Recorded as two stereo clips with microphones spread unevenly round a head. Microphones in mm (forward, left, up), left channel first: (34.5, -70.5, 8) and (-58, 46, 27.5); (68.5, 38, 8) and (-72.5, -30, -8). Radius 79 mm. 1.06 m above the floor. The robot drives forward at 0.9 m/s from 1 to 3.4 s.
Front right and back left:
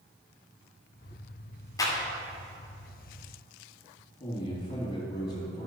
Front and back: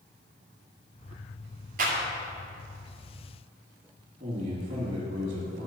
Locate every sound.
1.8 s a clap: 120° right, 2.5 m
4.2 s a man speaking: 115° right, 2.5 m